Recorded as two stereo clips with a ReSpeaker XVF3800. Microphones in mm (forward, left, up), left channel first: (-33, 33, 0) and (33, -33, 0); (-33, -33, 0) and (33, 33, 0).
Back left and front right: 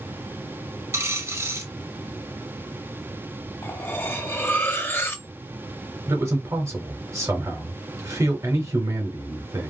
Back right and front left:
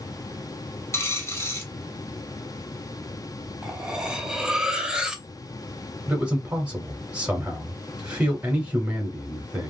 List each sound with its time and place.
0.9 s a dropped coin: 90° right, 0.7 m
3.6 s cutlery clinking: 115° left, 0.7 m
6.1 s a man speaking: 20° right, 1.0 m